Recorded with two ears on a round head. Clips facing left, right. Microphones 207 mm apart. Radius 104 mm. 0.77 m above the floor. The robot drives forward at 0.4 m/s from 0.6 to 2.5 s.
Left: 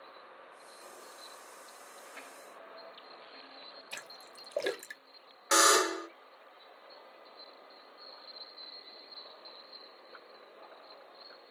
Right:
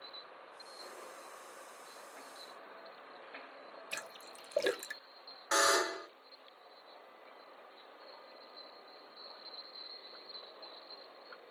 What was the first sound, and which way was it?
A splash, 5° right (ahead or behind).